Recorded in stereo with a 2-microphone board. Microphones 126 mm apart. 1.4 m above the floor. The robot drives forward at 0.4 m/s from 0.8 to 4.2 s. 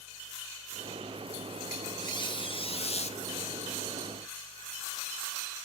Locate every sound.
2.0 s a squeak: 35° left (ahead or behind), 0.8 m; by 3.2 s 60° left (ahead or behind), 0.5 m